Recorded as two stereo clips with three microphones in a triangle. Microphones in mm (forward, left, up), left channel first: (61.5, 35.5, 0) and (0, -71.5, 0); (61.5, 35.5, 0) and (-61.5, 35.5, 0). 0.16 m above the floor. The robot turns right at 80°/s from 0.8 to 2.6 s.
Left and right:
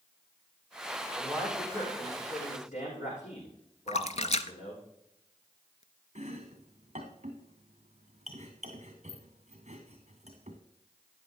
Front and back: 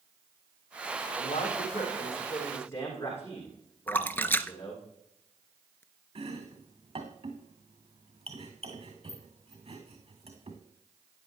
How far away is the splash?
About 0.6 m.